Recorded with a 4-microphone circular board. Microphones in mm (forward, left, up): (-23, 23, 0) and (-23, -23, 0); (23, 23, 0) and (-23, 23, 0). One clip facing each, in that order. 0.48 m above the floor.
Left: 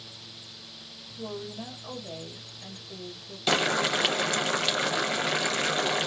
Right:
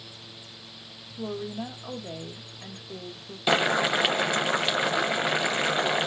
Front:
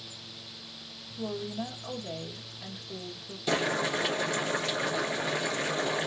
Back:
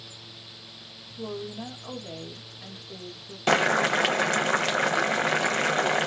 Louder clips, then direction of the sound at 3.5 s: Right 2 dB, back 7 dB; 165° right.